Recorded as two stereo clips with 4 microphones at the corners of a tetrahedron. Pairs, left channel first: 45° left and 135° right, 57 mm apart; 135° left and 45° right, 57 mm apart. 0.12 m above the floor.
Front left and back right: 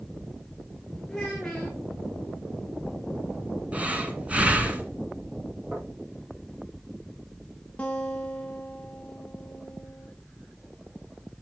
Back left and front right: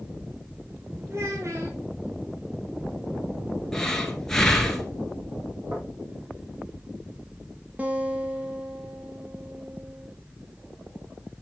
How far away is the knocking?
About 4 m.